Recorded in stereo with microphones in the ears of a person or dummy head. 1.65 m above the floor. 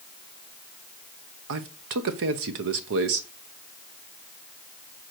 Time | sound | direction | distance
1.5 | a man speaking | 60° right (ahead or behind) | 0.8 m